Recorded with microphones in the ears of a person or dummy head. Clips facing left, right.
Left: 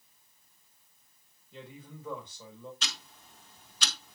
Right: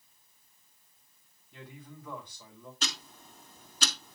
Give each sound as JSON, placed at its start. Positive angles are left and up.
{"t": 1.5, "sound": "a man speaking", "side_deg": 20, "distance_m": 7.5}
{"t": 2.8, "sound": "ticking", "side_deg": -45, "distance_m": 1.7}